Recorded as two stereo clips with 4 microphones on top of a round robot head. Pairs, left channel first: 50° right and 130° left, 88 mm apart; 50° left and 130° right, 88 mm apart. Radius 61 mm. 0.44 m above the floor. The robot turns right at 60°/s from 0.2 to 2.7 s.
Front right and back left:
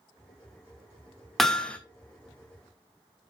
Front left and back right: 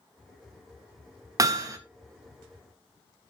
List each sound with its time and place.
1.4 s hammering: 135° right, 1.1 m; by 1.8 s 115° right, 1.1 m